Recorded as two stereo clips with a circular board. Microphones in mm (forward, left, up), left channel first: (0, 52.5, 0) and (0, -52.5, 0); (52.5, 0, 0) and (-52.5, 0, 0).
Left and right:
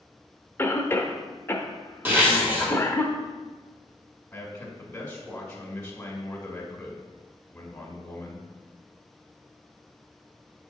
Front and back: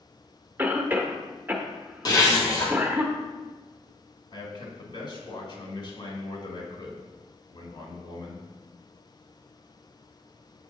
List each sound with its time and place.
0.6 s a cough: 130° left, 0.8 m
2.0 s a zipper: 25° right, 1.7 m
4.3 s a man speaking: 20° left, 1.8 m